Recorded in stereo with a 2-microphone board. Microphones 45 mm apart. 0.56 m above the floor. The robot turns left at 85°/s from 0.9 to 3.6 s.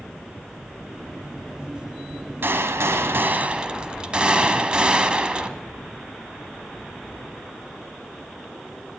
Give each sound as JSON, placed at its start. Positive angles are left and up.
{"t": 2.4, "sound": "a gunshot", "azimuth_deg": -60, "distance_m": 1.0}